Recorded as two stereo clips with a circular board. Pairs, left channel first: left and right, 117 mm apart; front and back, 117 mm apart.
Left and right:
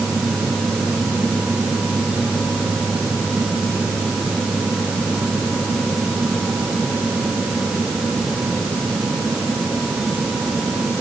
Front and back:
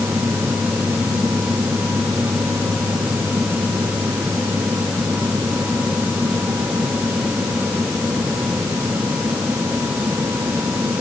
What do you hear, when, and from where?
Only background noise.